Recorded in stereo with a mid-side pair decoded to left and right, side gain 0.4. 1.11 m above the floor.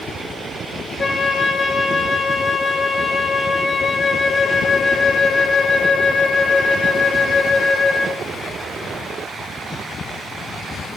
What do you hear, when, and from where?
1.0 s a flute: 40° left, 2 m